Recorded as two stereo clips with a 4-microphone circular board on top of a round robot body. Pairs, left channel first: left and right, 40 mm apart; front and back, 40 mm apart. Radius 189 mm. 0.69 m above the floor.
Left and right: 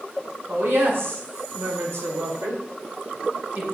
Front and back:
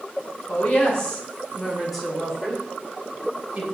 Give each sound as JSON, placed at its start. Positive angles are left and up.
{"t": 0.5, "sound": "a woman speaking", "azimuth_deg": -55, "distance_m": 3.5}